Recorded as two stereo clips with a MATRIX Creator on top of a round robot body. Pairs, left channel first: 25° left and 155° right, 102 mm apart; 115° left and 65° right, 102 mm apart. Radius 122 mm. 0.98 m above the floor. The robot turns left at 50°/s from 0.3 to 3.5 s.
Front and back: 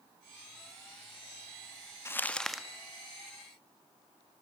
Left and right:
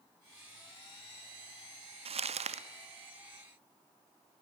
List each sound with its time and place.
2.0 s crumpling: 45° right, 1.6 m; by 2.7 s 75° right, 1.6 m